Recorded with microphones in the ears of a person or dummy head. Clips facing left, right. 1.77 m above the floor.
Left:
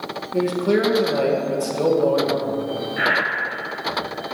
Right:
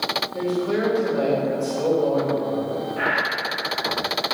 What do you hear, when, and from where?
0.3 s a man speaking: 75° left (ahead or behind), 2.0 m
3.0 s breathing: 20° left (ahead or behind), 1.5 m